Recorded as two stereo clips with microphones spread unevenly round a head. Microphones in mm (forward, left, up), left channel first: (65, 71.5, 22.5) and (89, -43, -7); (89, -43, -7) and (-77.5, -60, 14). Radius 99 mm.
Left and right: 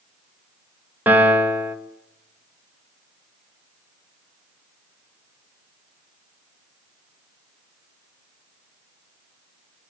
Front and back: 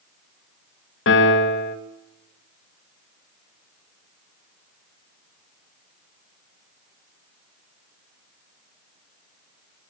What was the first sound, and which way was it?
A piano, straight ahead.